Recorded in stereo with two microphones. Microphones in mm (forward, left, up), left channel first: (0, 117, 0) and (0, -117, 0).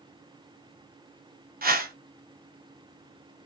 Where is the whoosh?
40° right (ahead or behind), 0.6 m.